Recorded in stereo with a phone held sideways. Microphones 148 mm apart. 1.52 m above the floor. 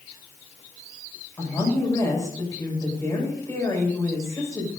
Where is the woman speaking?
20° left (ahead or behind), 6.5 m.